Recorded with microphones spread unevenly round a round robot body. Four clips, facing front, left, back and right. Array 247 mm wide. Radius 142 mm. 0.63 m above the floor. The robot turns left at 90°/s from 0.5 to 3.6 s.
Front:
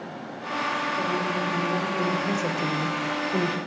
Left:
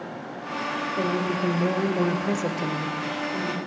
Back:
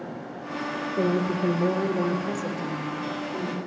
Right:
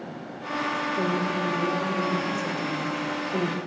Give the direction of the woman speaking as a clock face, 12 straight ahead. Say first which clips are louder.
Left 3 dB, back 2 dB; 5 o'clock.